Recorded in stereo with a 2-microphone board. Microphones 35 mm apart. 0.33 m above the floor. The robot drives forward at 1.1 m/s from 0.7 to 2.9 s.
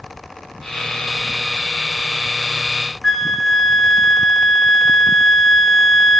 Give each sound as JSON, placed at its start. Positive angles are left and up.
{"t": 3.0, "sound": "a flute", "side_deg": 10, "distance_m": 1.6}